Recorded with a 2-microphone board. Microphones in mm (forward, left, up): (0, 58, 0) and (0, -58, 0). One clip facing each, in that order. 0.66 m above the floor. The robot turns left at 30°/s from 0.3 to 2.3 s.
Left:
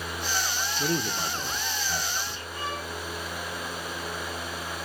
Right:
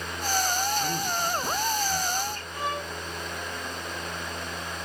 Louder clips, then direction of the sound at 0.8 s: Even; 60° left.